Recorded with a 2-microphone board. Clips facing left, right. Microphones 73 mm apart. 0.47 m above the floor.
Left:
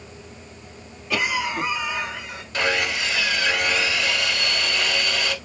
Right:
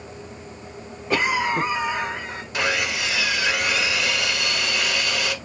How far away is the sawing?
About 1.1 m.